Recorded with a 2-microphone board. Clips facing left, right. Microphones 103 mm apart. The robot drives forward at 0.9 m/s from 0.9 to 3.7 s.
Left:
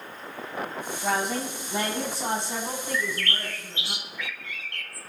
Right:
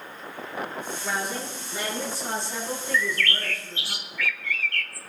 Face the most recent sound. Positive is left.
turn(degrees=20)  # may be behind; listen again after turning